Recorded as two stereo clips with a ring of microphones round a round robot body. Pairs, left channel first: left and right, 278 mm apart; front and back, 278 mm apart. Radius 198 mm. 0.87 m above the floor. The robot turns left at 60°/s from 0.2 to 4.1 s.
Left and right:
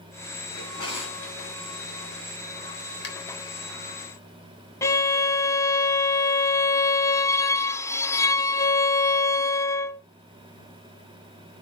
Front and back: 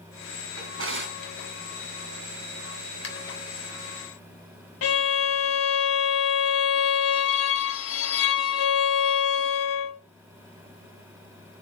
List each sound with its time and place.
0.6 s a drawer: 160° left, 3.5 m; by 1.4 s 115° left, 3.5 m
3.0 s a finger snap: 45° left, 4 m; by 3.1 s 35° left, 4 m
4.8 s a violin: 15° left, 1.1 m